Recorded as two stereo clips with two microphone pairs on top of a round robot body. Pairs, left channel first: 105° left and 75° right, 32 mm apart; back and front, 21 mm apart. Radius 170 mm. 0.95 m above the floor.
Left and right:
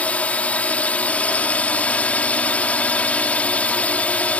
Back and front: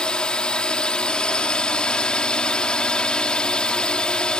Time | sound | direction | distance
0.0 | a drone | 145° left | ?